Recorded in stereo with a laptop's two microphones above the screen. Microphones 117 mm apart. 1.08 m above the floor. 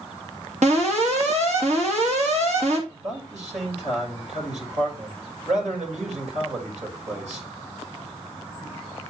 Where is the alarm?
75° right (ahead or behind), 3 m.